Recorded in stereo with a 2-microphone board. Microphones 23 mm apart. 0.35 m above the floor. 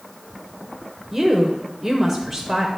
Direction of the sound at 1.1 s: 15° right (ahead or behind).